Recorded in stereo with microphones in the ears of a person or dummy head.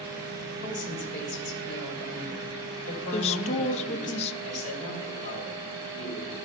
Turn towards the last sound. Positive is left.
turn(degrees=35)  # may be behind; listen again after turning